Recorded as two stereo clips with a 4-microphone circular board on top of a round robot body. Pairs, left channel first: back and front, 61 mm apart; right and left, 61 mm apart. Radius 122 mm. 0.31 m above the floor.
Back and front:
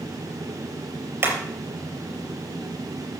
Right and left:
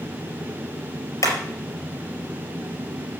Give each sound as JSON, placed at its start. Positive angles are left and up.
{"t": 1.2, "sound": "hammering", "azimuth_deg": -60, "distance_m": 4.5}